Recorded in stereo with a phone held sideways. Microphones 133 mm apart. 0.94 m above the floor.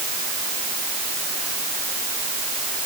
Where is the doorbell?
No doorbell in this recording.